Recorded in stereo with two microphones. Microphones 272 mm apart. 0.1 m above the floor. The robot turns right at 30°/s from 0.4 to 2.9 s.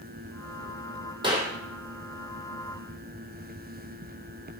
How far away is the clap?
About 3 m.